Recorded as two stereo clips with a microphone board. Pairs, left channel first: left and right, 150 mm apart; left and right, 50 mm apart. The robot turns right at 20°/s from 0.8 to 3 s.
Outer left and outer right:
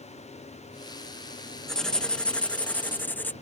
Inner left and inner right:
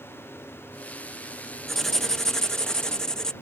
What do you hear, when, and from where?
1.7 s writing: 5° left (ahead or behind); by 3.3 s 10° left (ahead or behind)